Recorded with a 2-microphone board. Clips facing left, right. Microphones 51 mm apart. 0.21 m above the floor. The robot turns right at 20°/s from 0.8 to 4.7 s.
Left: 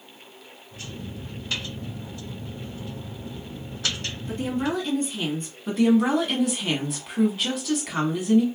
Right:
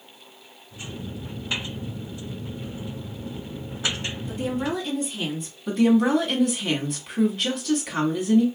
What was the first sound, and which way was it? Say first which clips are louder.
A woman speaking: left 1 dB; 5° right (ahead or behind).